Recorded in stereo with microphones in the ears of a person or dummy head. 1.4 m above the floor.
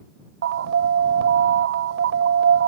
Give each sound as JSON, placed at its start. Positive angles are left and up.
{"t": 0.4, "sound": "an alarm", "side_deg": -60}